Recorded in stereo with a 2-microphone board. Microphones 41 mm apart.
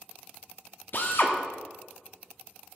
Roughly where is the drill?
Left.